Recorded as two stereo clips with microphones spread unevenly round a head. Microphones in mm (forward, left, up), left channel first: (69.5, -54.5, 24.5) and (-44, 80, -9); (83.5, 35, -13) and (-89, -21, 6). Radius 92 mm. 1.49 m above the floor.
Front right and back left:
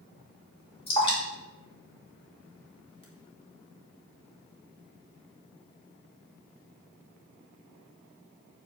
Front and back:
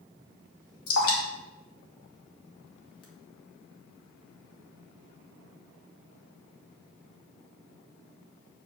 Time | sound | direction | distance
0.9 | dripping | 10° left | 2.5 m